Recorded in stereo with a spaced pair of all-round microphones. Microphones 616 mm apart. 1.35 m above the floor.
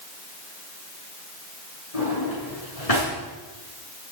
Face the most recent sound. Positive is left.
turn(degrees=65)  # may be behind; listen again after turning